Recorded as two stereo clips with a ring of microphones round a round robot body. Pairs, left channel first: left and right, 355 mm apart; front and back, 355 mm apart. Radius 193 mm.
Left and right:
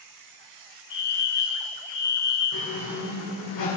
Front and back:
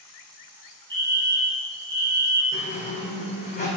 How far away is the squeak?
About 5 m.